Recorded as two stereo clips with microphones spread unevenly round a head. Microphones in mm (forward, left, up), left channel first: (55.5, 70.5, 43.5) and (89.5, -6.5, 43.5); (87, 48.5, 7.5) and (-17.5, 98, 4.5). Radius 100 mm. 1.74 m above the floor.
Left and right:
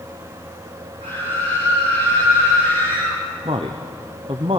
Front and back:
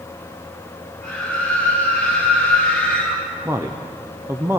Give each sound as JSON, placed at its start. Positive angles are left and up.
{"t": 1.0, "sound": "a scream", "azimuth_deg": -120, "distance_m": 6.0}
{"t": 3.5, "sound": "a man speaking", "azimuth_deg": -130, "distance_m": 0.7}